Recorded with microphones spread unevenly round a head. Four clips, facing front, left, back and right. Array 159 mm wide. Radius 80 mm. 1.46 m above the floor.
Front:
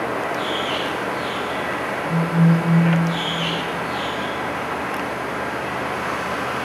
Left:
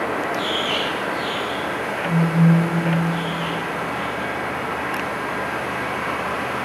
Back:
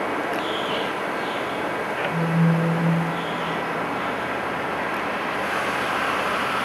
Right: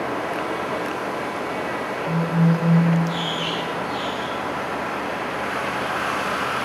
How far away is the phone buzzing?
About 3.5 m.